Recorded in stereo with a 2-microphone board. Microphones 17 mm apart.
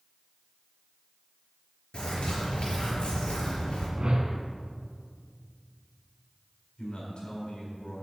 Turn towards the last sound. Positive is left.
turn(degrees=70)  # may be behind; listen again after turning